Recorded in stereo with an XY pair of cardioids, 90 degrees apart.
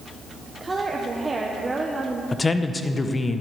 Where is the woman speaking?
20° right, 1.1 m.